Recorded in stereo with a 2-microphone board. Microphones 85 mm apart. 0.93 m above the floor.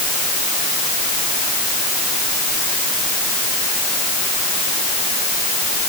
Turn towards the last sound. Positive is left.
No sound to turn to.